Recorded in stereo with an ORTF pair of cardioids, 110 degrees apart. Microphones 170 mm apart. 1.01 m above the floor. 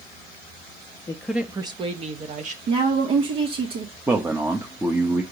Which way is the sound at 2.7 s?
60° right.